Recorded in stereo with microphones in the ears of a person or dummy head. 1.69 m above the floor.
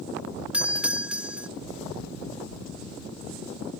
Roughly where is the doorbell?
Centre.